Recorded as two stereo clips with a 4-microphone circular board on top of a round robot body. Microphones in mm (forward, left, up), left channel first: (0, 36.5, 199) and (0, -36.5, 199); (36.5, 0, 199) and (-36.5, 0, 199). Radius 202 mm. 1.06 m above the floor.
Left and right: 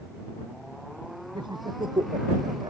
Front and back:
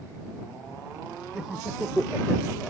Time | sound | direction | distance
1.4 | laughter | 95° right | ?